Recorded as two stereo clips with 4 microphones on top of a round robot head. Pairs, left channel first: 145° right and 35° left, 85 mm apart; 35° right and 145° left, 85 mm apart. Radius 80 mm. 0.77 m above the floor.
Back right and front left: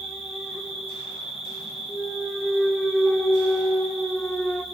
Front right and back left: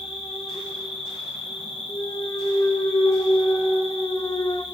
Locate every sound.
0.0 s an insect: 55° right, 0.8 m
1.9 s a clunk: 55° right, 0.7 m